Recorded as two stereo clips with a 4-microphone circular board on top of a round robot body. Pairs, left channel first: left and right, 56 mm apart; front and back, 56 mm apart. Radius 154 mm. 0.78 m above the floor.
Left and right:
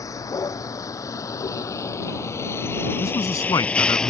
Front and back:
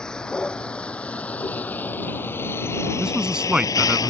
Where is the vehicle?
75° left; by 4.1 s 5° left.